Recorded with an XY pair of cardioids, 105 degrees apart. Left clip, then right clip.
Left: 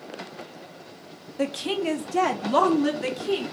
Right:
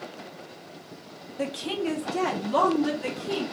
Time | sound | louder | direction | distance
1.4 | a woman speaking | left 3 dB | 20° left | 1.0 m